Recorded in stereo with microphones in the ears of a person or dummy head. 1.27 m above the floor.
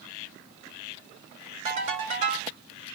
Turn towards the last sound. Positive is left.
turn(degrees=-35)  # may be behind; listen again after turning